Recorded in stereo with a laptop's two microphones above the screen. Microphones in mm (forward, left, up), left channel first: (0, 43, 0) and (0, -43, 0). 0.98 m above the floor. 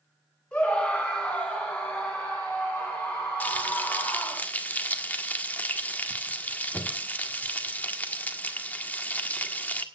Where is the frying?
20° left (ahead or behind), 1.6 m.